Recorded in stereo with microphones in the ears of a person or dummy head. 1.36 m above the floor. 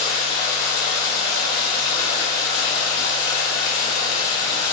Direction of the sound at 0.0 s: 45° left (ahead or behind).